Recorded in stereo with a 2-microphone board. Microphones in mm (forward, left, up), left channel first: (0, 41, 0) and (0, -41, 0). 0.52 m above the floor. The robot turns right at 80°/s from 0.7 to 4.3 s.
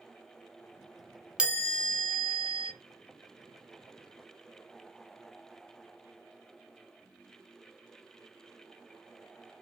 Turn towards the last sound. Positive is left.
turn(degrees=65)